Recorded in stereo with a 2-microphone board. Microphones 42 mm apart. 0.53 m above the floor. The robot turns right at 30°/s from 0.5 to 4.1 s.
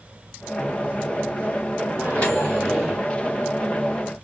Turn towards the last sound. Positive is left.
turn(degrees=-160)